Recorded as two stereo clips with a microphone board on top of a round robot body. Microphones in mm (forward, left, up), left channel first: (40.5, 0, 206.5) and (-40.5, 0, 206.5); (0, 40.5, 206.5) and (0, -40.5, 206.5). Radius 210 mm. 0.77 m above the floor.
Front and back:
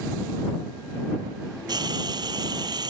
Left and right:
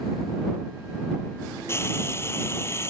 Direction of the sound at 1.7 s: 150° left.